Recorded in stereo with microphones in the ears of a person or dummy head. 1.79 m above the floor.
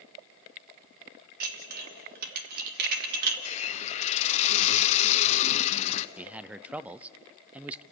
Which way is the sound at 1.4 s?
55° right (ahead or behind).